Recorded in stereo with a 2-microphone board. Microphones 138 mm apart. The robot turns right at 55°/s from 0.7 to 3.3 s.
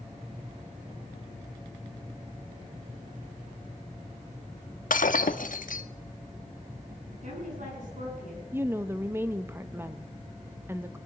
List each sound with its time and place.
4.9 s breaking glass: 80° left, 0.6 m
7.2 s a woman speaking: 65° right (ahead or behind), 7 m
8.5 s a woman speaking: 15° right (ahead or behind), 0.6 m